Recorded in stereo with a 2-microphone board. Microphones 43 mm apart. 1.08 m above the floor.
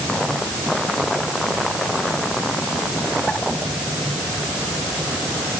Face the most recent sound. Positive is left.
No sound to turn to.